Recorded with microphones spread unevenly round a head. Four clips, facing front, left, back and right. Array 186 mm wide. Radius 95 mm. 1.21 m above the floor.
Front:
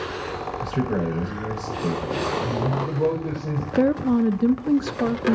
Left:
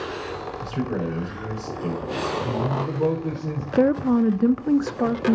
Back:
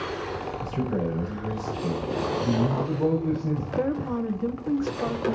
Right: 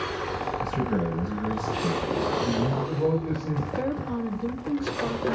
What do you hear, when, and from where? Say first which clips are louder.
0.6 s a man speaking: left 2 dB, front 4 dB; 20° left, 6.5 m
2.4 s a man speaking: left 1 dB, even; 35° left, 5 m
3.8 s a woman speaking: left 14 dB, front 10 dB; 55° left, 0.7 m